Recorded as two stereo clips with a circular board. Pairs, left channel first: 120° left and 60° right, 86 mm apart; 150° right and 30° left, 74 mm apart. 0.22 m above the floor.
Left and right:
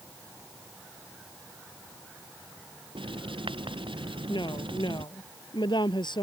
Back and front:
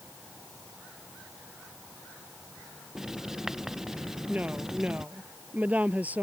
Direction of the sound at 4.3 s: 100° left.